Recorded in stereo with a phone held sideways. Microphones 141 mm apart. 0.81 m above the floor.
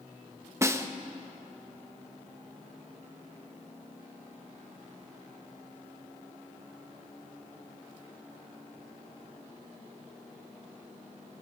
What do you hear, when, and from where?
0.6 s a snare drum: 20° right (ahead or behind), 1.0 m